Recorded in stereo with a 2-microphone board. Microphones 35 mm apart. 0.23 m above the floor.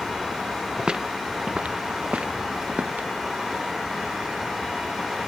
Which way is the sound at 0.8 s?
25° right (ahead or behind).